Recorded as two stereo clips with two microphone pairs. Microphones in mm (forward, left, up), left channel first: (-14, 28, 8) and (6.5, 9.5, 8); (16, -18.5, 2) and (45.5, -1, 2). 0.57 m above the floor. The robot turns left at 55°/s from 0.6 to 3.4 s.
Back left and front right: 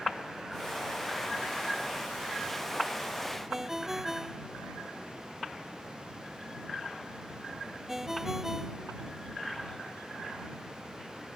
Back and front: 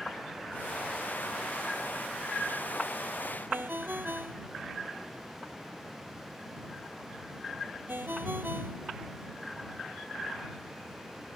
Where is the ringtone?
40° left.